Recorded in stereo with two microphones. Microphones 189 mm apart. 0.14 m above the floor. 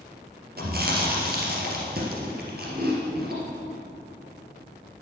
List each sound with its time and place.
0.6 s chewing: 60° right (ahead or behind), 2.5 m